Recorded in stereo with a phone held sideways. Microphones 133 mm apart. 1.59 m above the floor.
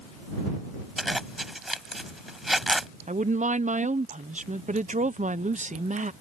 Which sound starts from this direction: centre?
A zipper, at 1.0 s.